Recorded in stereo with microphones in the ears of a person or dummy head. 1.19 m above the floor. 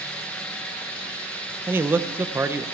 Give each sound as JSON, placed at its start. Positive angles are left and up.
{"t": 1.7, "sound": "a man speaking", "side_deg": -10, "distance_m": 1.1}